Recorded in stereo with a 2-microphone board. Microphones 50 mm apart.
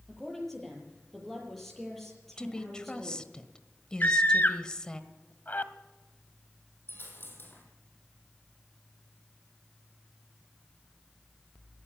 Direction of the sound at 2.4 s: 20° left (ahead or behind).